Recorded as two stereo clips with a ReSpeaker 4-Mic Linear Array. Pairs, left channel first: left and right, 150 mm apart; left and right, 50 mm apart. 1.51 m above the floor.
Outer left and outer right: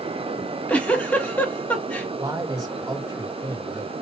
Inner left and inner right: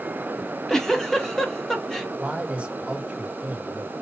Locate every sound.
0.4 s a giggle: 10° left (ahead or behind), 1.8 m
2.2 s a man speaking: 25° right (ahead or behind), 2 m